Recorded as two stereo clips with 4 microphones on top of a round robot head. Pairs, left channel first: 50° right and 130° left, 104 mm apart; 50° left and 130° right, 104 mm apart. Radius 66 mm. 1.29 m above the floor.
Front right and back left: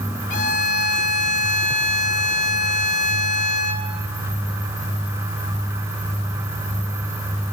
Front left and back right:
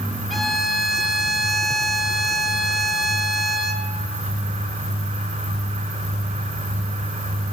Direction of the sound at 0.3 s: 40° right.